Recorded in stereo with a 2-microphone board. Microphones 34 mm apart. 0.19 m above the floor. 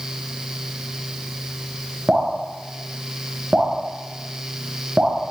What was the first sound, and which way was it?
Dripping, 40° right (ahead or behind).